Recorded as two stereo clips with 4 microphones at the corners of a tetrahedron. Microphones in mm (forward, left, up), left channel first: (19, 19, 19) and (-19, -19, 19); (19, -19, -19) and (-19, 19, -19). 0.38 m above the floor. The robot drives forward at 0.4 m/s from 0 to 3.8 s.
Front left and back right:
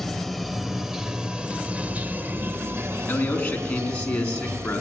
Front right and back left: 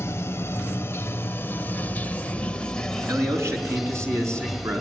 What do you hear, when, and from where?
0.0 s running water: 40° right, 1.2 m; by 4.8 s 135° right, 1.1 m
3.1 s a man speaking: 110° left, 4 m; by 4.8 s 115° left, 4 m